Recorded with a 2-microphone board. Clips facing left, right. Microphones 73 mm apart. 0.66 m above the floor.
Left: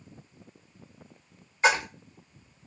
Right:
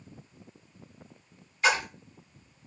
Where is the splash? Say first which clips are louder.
Left 2 dB; 25° left (ahead or behind), 1.3 m.